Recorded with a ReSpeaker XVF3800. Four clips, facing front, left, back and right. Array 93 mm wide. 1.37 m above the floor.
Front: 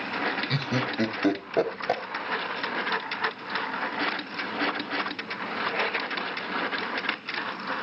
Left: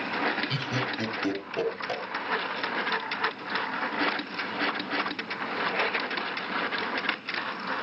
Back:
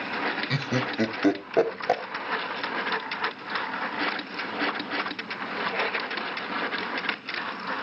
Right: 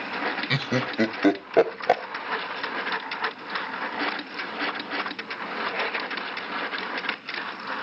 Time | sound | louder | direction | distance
0.5 | laughter | right 4 dB, even | 95° right | 1.1 m